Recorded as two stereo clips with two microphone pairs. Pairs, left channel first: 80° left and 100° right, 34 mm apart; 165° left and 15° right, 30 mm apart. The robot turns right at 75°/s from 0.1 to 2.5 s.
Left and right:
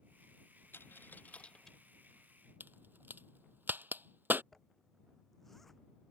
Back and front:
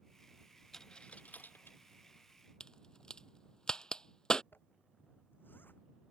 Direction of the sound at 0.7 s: 85° left.